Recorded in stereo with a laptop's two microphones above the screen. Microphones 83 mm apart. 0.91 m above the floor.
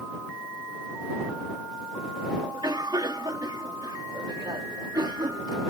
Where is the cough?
55° right (ahead or behind).